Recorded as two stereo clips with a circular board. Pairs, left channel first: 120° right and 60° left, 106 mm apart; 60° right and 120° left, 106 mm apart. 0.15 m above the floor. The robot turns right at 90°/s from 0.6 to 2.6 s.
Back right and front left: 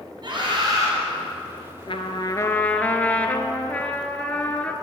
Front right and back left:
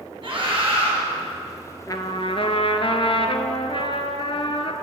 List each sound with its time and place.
0.2 s a scream: 95° left, 3 m; by 0.9 s 125° left, 3 m
1.9 s a trumpet: 110° right, 0.8 m; by 4.7 s 45° right, 0.8 m